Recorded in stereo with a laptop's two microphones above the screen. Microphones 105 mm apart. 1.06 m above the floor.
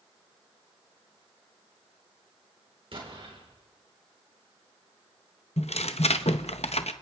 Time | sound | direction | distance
2.9 | an explosion | 60° right (ahead or behind) | 4 m
5.6 | tearing paper | 85° left | 0.7 m